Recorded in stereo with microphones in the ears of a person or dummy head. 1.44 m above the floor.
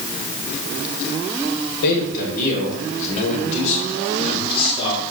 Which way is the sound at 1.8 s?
60° left (ahead or behind).